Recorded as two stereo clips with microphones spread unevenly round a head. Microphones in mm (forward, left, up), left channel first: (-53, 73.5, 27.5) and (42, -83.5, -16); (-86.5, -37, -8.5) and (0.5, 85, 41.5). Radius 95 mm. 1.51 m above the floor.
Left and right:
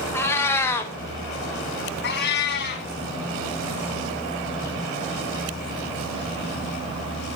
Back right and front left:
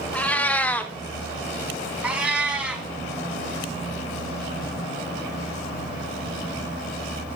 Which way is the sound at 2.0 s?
125° left.